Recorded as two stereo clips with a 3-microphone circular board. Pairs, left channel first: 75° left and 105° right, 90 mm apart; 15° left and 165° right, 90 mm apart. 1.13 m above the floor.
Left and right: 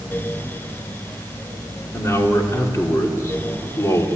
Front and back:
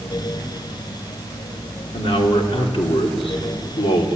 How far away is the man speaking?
About 3 m.